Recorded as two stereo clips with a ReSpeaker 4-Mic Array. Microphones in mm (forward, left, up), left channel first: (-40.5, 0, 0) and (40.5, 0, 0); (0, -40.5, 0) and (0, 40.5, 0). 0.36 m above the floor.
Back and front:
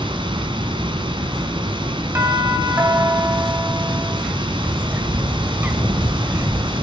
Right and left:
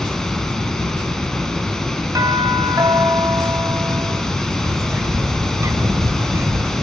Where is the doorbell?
50° left, 3 m.